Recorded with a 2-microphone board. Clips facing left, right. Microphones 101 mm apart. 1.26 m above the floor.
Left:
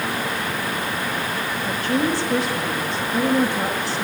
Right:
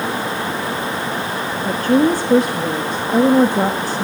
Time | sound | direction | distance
1.6 | a woman speaking | 45° right (ahead or behind) | 1.6 m